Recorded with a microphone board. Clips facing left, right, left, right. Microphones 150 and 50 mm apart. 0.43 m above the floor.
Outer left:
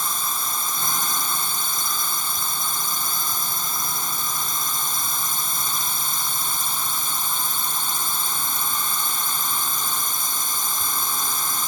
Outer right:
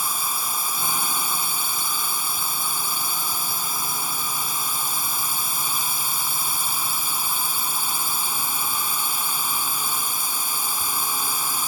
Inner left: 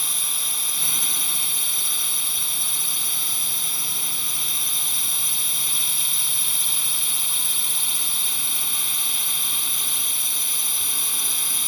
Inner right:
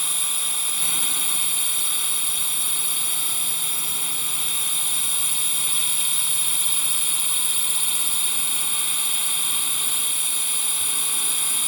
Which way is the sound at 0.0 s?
10° right (ahead or behind).